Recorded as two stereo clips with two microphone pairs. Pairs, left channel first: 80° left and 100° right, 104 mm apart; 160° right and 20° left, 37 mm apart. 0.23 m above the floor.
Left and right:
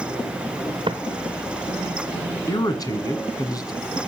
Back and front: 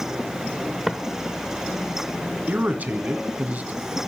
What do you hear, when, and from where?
0.9 s footsteps: 60° right, 1.3 m
2.5 s a man speaking: 40° left, 1.7 m